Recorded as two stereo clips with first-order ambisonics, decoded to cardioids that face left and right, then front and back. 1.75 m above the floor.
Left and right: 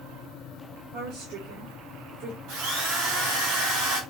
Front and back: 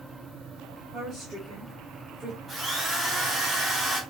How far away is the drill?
About 3 m.